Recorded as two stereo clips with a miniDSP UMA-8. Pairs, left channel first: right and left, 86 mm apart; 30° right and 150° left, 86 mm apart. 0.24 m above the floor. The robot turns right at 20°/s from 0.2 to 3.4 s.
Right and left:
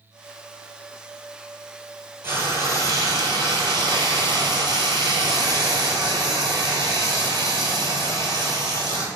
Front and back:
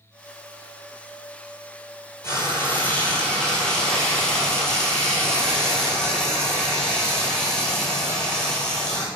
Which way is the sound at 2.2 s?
30° left.